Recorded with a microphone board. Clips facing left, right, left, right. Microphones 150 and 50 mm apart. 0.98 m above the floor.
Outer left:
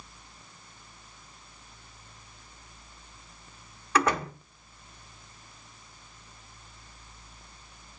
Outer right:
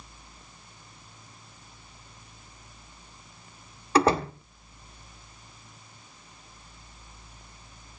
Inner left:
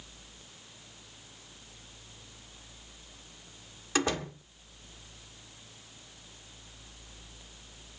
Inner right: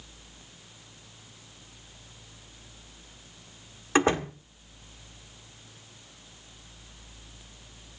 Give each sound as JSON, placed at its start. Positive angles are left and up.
{"t": 4.0, "sound": "a door slam", "side_deg": -30, "distance_m": 1.6}